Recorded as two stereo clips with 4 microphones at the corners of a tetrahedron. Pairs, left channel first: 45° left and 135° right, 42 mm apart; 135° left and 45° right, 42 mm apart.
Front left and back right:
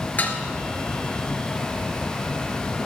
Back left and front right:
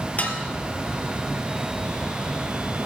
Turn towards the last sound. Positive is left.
turn(degrees=90)